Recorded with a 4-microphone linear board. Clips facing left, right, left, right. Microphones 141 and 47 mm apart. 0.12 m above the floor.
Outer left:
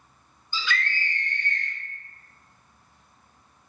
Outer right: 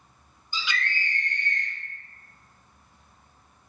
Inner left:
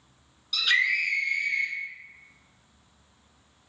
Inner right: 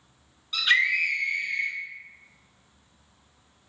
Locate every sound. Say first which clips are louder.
0.5 s a scream: outer left 2 dB, inner right 2 dB; 20° right (ahead or behind), 1.3 m